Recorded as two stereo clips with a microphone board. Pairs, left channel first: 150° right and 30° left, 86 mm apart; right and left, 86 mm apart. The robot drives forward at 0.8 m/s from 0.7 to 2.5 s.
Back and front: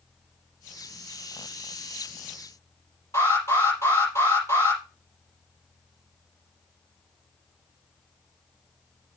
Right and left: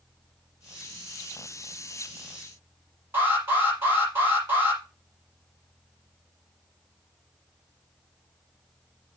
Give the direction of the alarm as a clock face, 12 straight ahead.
7 o'clock.